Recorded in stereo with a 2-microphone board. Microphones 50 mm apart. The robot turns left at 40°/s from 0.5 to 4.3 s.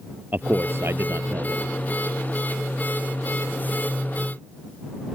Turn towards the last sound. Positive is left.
turn(degrees=170)